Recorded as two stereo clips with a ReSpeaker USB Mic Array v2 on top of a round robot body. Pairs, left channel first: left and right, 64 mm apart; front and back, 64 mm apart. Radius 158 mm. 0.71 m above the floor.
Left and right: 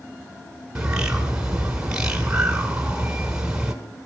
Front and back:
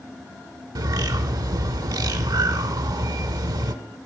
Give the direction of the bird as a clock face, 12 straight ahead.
6 o'clock.